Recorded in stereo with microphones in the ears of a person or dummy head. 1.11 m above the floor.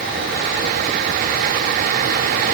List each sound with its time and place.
Only background noise.